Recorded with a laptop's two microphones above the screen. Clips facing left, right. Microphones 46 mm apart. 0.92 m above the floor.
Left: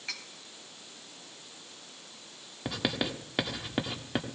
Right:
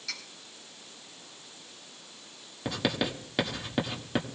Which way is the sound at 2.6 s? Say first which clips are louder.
Right 2 dB; 5° left (ahead or behind).